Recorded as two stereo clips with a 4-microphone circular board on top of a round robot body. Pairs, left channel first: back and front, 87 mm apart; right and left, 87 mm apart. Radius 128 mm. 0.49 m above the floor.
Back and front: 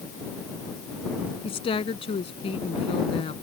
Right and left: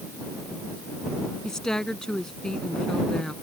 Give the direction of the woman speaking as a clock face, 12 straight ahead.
6 o'clock.